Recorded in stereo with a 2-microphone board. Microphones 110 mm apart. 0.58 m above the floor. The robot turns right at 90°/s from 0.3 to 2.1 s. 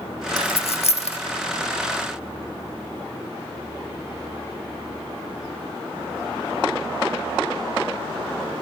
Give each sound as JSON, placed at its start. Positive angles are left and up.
{"t": 0.4, "sound": "a dropped coin", "side_deg": 40, "distance_m": 0.6}